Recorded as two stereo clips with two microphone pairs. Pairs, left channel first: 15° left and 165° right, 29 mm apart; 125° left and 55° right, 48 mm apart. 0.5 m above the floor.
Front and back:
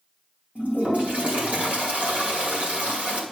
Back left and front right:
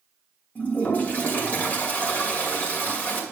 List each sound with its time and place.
0.6 s a toilet flushing: 175° left, 2.5 m